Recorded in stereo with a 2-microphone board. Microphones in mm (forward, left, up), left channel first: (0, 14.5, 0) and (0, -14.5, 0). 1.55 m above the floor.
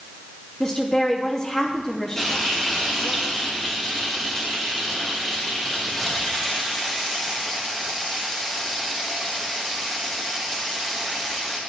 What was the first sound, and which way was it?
A woman speaking, 25° left (ahead or behind).